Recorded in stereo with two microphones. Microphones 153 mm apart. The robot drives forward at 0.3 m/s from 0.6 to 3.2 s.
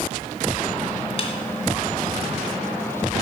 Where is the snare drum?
40° left (ahead or behind), 1.5 m.